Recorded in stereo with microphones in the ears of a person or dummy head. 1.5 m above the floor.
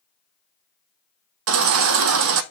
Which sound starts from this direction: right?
A baby crying, at 1.5 s.